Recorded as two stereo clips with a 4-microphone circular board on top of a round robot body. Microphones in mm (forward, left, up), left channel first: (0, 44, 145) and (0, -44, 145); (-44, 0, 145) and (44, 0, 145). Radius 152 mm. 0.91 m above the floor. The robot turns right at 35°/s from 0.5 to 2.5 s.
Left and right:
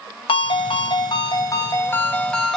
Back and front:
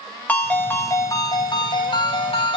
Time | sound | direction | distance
0.3 | a ringtone | 105° left | 1.1 m